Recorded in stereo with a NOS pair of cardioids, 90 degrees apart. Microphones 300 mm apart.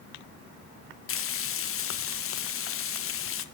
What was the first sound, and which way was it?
Frying, 45° left.